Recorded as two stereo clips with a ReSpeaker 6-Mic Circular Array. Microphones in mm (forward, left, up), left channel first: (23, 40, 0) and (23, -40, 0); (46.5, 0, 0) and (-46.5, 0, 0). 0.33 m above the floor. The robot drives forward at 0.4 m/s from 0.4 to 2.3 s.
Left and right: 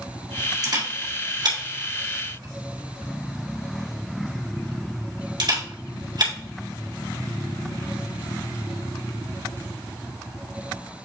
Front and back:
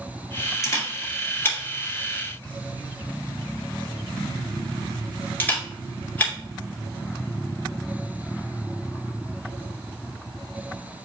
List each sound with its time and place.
0.6 s a camera shutter: 55° right, 2 m; by 6.3 s 70° right, 1.8 m